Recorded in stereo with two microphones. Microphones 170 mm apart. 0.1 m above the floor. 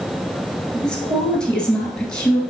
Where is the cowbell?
I don't hear a cowbell.